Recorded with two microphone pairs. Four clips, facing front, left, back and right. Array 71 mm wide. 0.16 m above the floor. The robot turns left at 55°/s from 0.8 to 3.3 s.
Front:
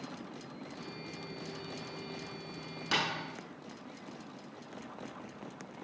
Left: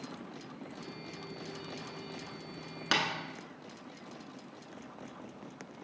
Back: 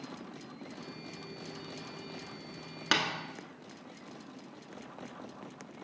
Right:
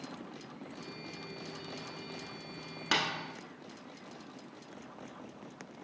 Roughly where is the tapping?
Behind.